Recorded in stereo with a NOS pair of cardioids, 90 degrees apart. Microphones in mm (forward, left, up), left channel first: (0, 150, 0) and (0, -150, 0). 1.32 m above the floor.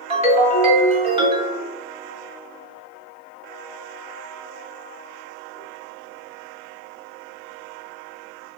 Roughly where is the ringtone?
Ahead.